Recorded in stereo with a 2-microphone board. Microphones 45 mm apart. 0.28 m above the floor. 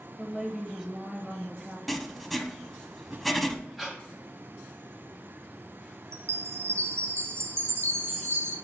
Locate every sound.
0.2 s a woman speaking: 5° right (ahead or behind), 1.0 m
1.9 s writing: centre (ahead or behind), 0.7 m
3.8 s breathing: 5° right (ahead or behind), 1.9 m
6.1 s a chime: 80° right, 1.2 m